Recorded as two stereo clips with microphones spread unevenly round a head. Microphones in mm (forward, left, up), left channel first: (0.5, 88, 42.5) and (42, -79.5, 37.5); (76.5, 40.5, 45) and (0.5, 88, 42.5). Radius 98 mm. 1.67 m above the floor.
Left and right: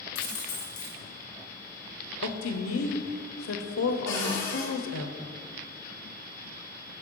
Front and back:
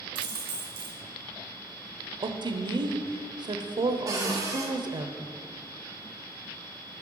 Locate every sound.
0.1 s a dropped coin: 150° left, 1.8 m
2.2 s a woman speaking: 110° left, 0.7 m
4.1 s a cupboard door: 165° left, 1.2 m